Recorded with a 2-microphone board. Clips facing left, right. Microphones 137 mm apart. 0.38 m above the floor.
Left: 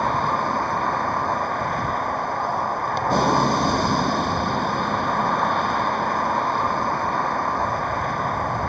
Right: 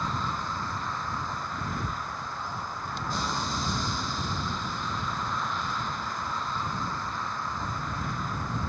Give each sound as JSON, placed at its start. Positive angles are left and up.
{"t": 0.0, "sound": "a vehicle", "side_deg": 60}